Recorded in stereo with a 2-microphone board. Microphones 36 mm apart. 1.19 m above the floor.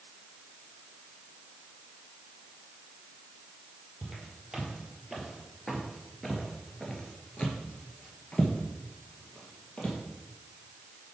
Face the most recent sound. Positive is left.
turn(degrees=35)  # may be behind; listen again after turning